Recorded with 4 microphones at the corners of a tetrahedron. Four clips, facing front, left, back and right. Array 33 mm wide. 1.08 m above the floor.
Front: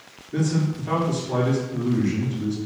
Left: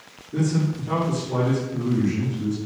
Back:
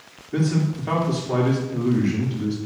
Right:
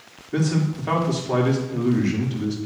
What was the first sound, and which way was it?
A man speaking, 110° right.